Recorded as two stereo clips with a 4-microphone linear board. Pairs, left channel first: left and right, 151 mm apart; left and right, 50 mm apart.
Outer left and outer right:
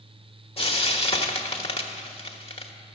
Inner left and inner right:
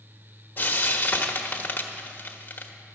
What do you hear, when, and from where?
0.6 s frying: 40° left (ahead or behind), 1.0 m